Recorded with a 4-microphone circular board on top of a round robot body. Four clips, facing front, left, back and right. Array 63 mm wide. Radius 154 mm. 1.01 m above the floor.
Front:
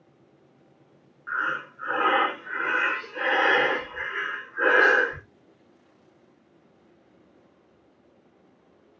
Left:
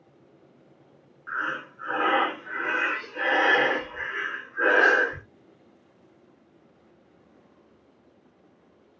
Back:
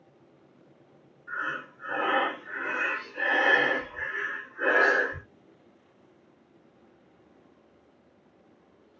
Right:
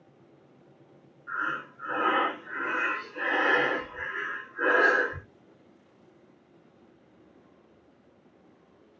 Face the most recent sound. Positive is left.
turn(degrees=30)